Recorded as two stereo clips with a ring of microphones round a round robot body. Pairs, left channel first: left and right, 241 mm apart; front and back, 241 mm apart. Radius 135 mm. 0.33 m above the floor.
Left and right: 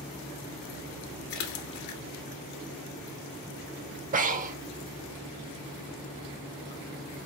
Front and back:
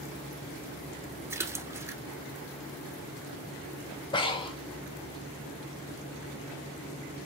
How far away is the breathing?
About 0.7 m.